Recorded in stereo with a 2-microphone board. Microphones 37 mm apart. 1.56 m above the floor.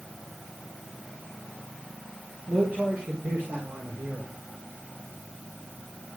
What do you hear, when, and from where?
2.5 s a man speaking: 55° right (ahead or behind), 5.5 m; by 4.3 s 70° right (ahead or behind), 6 m